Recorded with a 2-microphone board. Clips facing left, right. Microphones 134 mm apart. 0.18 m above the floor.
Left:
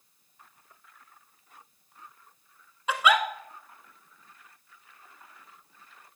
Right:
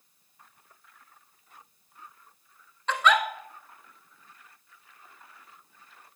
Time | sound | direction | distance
2.9 | a giggle | 10° left (ahead or behind) | 1.1 m